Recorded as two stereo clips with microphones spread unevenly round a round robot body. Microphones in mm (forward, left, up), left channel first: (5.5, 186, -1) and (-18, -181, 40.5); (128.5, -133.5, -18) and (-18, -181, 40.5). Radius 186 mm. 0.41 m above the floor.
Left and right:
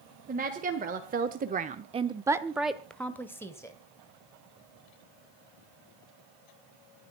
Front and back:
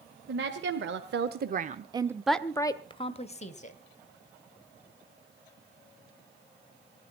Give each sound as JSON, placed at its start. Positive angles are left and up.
{"t": 0.3, "sound": "a woman speaking", "azimuth_deg": -165, "distance_m": 1.7}